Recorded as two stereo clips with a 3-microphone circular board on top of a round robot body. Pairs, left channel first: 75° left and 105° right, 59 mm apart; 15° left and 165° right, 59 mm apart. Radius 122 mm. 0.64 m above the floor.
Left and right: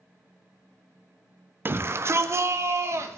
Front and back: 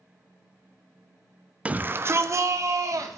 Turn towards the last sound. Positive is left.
turn(degrees=-145)